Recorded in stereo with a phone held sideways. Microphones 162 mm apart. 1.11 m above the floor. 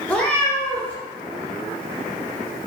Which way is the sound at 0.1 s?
10° left (ahead or behind).